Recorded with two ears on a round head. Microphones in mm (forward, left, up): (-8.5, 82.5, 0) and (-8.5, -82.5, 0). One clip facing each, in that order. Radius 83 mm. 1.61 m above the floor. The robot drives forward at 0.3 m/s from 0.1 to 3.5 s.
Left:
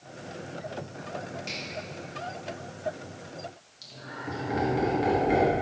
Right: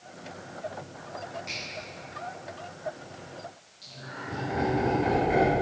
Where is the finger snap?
35° left (ahead or behind), 3 m; by 1.6 s 40° left (ahead or behind), 3 m.